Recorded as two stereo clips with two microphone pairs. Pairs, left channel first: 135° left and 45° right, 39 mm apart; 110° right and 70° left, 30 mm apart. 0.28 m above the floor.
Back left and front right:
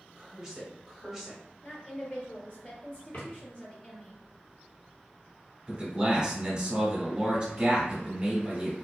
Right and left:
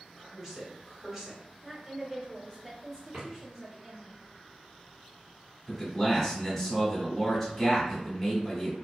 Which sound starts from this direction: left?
A drawer, at 3.1 s.